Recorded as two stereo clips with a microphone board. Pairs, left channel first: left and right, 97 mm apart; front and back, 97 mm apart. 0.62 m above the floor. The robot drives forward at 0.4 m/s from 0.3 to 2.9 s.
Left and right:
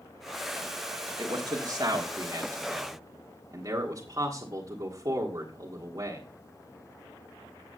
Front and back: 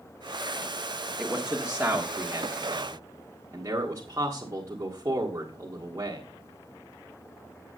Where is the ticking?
I don't hear ticking.